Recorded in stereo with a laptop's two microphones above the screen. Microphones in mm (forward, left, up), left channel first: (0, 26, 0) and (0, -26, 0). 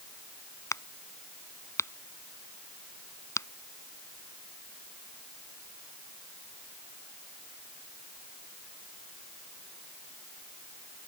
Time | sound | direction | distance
0.7 | a crack | 70° left (ahead or behind) | ?